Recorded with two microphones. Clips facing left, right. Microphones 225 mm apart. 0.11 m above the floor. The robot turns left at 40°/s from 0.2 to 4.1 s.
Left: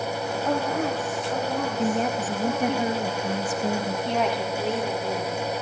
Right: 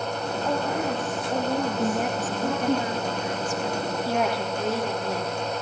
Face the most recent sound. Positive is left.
turn(degrees=-5)  # may be behind; listen again after turning